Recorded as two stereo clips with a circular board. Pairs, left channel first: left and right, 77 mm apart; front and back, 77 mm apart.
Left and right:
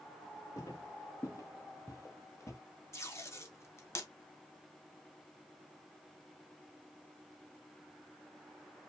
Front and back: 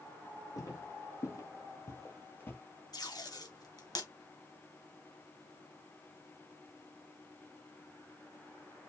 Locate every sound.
0.6 s footsteps: 45° left, 4 m; by 2.6 s 55° left, 2 m
2.9 s tape being pulled: 35° left, 1.8 m